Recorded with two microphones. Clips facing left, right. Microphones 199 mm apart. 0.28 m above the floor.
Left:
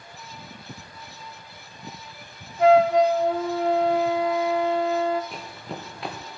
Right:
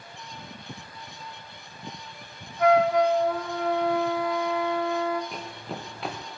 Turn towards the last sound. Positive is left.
turn(degrees=0)  # may be behind; listen again after turning